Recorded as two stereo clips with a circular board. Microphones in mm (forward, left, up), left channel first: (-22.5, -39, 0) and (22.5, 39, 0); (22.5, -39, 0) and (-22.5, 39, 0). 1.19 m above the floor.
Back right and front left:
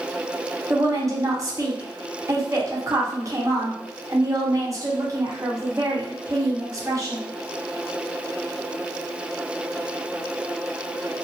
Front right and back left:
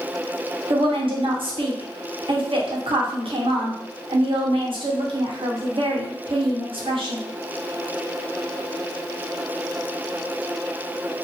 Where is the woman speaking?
115° left, 0.9 m.